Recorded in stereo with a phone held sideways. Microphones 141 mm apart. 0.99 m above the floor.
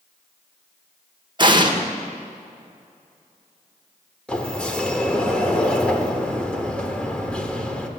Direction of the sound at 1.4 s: 35° right (ahead or behind).